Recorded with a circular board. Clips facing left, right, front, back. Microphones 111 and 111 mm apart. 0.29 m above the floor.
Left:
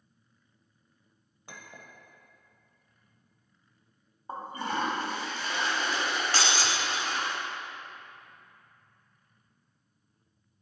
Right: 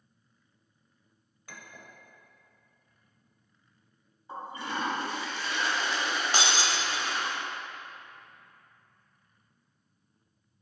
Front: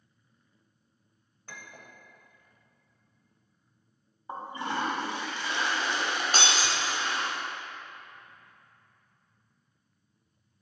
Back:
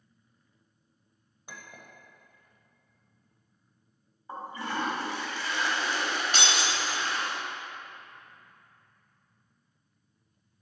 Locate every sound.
1.5 s a clink: 120° left, 0.9 m
4.3 s a toilet flushing: 60° left, 1.4 m
6.3 s breaking glass: 25° right, 0.6 m